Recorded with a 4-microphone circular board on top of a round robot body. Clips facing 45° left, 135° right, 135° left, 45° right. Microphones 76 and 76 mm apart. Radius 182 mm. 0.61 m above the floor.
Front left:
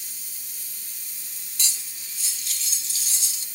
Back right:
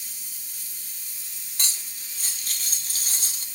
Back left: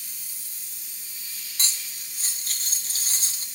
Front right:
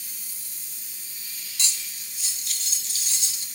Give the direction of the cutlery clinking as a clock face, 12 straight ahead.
6 o'clock.